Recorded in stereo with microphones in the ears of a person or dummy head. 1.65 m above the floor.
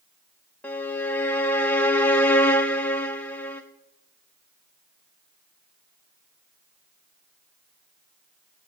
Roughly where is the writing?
No writing in this recording.